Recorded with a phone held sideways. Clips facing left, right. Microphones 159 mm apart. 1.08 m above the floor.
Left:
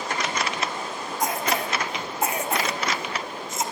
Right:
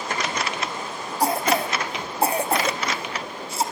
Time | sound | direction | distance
1.2 | a cough | 30° right (ahead or behind) | 0.8 m